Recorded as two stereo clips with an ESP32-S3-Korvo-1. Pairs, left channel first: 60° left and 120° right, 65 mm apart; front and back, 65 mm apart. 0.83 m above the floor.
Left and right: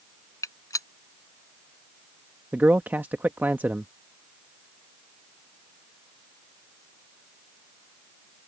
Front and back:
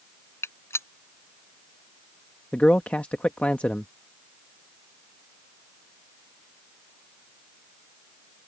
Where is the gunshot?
40° left.